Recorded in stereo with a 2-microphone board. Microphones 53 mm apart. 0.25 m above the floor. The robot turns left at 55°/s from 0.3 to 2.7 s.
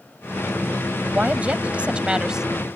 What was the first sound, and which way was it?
A woman speaking, 25° right (ahead or behind).